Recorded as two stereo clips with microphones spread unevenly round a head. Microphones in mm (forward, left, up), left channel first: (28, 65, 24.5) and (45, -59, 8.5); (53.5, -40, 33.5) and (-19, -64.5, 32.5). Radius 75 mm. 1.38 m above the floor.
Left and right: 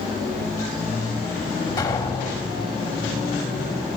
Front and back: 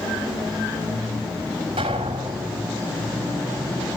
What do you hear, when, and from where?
1.8 s an explosion: 165° left, 2 m